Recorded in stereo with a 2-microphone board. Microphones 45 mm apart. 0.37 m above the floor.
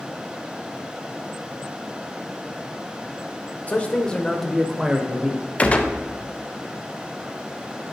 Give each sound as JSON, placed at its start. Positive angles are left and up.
{"t": 3.7, "sound": "a man speaking", "side_deg": 30, "distance_m": 0.9}
{"t": 5.6, "sound": "a gunshot", "side_deg": 30, "distance_m": 0.7}